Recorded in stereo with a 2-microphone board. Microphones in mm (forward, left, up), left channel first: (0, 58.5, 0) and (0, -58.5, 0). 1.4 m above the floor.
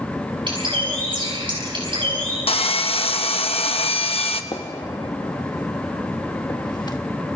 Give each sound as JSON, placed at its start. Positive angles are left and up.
{"t": 0.5, "sound": "a bird", "side_deg": -45, "distance_m": 6.5}
{"t": 2.5, "sound": "sawing", "side_deg": 55, "distance_m": 1.0}
{"t": 4.5, "sound": "a gunshot", "side_deg": 35, "distance_m": 1.2}